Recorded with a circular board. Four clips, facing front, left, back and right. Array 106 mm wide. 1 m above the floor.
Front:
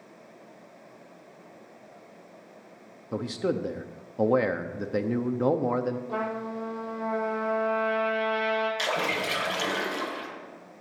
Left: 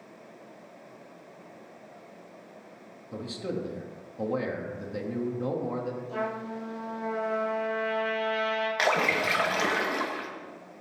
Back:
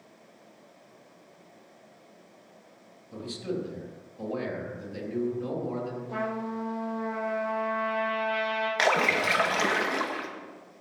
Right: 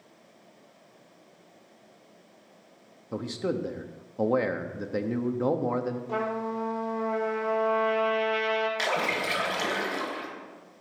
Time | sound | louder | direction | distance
3.1 | a man speaking | right 4 dB, front 5 dB | 30° right | 1.0 m
6.1 | a trumpet | right 4 dB, front 1 dB | 80° right | 5 m
8.8 | a splash | left 3 dB, back 4 dB | 150° left | 1.4 m